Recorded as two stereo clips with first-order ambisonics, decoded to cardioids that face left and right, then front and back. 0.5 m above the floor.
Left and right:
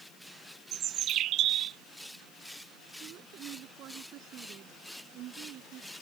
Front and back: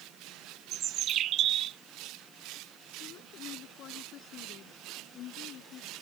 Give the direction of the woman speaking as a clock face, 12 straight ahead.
2 o'clock.